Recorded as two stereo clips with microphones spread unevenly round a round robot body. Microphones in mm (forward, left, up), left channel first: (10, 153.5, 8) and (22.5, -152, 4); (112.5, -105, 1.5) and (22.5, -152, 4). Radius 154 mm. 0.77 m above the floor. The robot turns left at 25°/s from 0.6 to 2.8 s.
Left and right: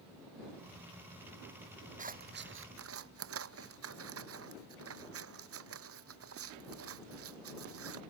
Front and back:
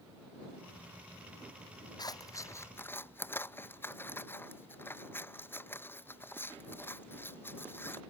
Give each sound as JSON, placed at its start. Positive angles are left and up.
{"t": 2.0, "sound": "scissors", "azimuth_deg": -20}